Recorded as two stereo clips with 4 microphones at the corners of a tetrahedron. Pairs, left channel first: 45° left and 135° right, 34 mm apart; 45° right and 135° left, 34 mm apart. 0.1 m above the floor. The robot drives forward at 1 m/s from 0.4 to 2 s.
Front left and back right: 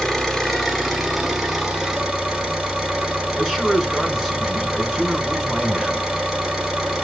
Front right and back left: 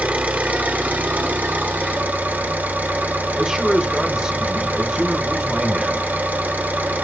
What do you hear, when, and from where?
0.0 s an engine running: 120° left, 1.8 m; by 7.0 s 155° left, 3 m
3.4 s a man speaking: 160° left, 1.6 m